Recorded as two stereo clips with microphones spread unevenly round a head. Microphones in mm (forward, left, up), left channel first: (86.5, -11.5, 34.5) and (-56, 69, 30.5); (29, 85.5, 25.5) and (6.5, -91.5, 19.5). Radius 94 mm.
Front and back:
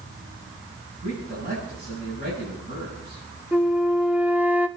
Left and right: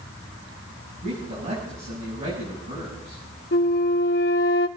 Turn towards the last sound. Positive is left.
turn(degrees=70)